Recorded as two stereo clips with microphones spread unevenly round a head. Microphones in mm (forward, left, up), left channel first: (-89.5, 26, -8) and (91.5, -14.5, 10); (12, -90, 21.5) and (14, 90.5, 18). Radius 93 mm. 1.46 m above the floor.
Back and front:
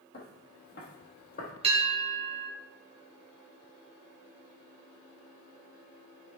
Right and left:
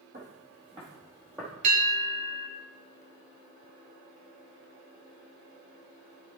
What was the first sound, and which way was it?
Footsteps, 130° left.